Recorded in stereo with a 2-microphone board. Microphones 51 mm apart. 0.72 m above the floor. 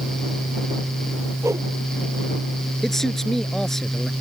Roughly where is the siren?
I don't hear a siren.